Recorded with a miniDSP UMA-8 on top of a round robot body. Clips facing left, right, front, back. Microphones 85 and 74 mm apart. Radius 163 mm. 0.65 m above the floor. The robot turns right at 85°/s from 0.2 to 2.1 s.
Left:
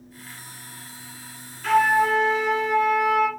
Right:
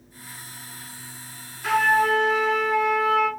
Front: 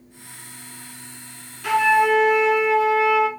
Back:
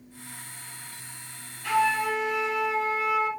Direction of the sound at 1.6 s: 15° right.